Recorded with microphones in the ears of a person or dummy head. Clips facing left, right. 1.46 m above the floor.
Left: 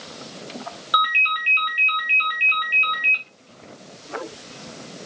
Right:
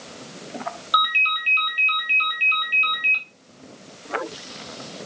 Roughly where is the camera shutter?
No camera shutter in this recording.